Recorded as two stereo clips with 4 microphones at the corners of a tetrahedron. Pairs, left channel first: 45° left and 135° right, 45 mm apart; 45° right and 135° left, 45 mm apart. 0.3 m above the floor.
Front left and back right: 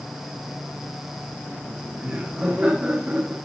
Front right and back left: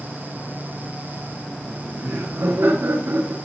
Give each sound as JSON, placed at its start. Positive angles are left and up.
{"t": 1.7, "sound": "laughter", "azimuth_deg": 165, "distance_m": 5.5}